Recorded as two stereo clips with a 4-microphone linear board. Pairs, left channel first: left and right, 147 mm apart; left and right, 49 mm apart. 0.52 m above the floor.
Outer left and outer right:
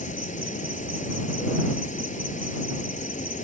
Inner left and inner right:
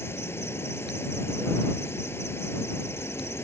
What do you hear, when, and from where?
0.0 s an insect: 60° left (ahead or behind)